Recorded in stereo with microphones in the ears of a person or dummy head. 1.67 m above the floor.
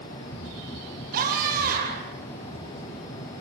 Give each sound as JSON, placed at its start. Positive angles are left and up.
{"t": 1.1, "sound": "a scream", "side_deg": -45, "distance_m": 8.5}